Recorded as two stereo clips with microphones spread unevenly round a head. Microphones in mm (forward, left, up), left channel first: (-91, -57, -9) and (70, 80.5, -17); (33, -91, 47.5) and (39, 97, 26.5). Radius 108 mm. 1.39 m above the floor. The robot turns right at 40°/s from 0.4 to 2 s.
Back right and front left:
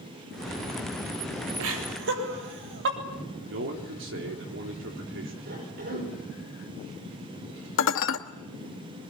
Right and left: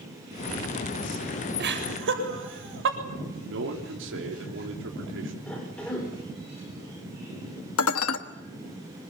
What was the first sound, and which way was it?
Laughter, 55° left.